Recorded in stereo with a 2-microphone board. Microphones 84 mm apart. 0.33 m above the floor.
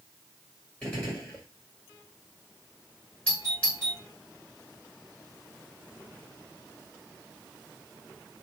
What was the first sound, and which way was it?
A gunshot, 10° left (ahead or behind).